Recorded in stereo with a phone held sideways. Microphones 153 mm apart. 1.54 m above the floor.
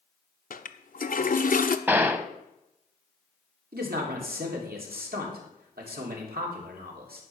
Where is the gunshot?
15° right (ahead or behind), 0.7 m.